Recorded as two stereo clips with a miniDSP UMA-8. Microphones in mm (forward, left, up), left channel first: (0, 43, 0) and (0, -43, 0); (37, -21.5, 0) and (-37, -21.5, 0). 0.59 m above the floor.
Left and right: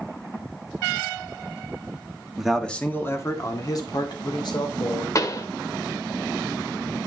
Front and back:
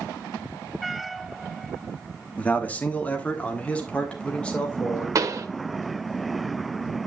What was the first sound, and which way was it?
A man speaking, 20° right.